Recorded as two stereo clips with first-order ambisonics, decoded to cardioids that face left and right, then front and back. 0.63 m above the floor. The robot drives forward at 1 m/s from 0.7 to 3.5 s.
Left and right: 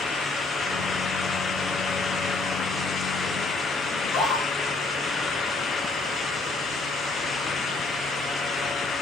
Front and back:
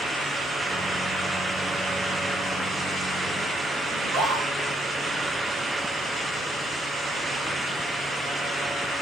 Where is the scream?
145° left, 8.5 m.